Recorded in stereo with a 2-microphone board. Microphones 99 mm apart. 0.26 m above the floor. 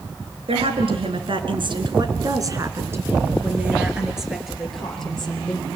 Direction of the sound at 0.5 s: 75° right (ahead or behind).